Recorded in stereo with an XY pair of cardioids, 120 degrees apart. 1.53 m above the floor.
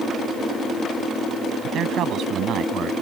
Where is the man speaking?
65° right; by 2.9 s 60° right.